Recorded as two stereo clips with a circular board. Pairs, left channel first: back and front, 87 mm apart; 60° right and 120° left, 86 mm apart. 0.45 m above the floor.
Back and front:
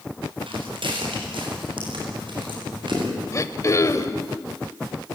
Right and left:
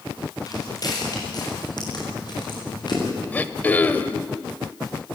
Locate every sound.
0.5 s footsteps: 15° right, 9 m; by 3.0 s 25° right, 10 m
3.3 s throat clearing: 130° right, 1.1 m